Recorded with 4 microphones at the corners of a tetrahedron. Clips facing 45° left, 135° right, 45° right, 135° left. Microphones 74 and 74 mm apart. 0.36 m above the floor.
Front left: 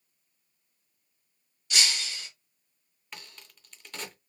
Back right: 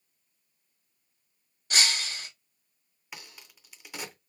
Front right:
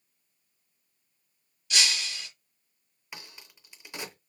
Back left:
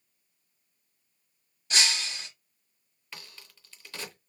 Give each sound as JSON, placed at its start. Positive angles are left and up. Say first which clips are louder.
{"t": 1.7, "sound": "breaking glass", "louder": "back right 2 dB, back left 1 dB", "azimuth_deg": 180, "distance_m": 0.9}
{"t": 3.1, "sound": "a crack", "louder": "even, front right 1 dB", "azimuth_deg": -70, "distance_m": 0.6}